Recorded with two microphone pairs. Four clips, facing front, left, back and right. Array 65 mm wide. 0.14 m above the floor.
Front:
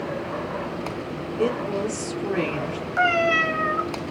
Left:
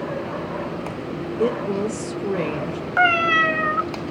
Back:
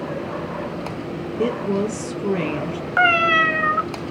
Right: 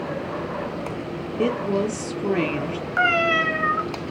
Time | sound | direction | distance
1.4 | a woman speaking | 95° right | 3.5 m
3.0 | a cat meowing | 175° left | 0.6 m